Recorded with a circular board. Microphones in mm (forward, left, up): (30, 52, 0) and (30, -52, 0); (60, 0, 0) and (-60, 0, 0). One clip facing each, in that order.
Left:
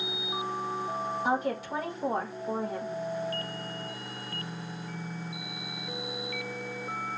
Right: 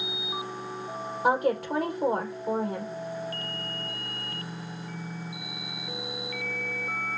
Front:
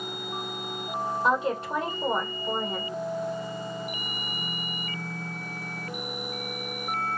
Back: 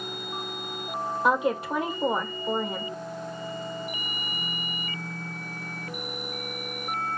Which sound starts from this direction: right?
A woman speaking, at 1.2 s.